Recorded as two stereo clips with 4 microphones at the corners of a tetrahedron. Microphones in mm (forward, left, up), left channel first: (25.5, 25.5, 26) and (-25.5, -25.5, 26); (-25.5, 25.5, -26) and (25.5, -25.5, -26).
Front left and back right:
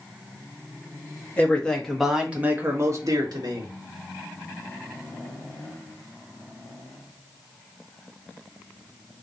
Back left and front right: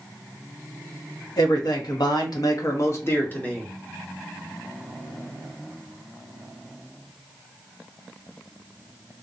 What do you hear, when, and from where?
1.4 s a man speaking: 110° left, 1.2 m; by 3.7 s 150° right, 1.3 m